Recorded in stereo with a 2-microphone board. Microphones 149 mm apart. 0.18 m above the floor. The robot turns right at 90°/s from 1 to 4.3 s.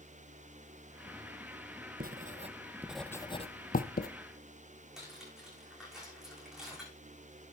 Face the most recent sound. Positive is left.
turn(degrees=-5)  # may be behind; listen again after turning